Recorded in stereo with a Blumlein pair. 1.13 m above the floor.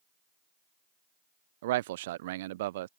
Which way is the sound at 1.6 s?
55° right.